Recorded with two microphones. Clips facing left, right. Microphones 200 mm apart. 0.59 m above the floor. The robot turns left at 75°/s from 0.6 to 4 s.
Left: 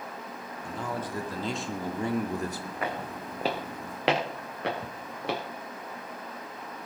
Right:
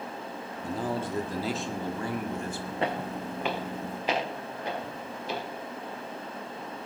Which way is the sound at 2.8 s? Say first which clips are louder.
Right 4 dB; 30° right (ahead or behind).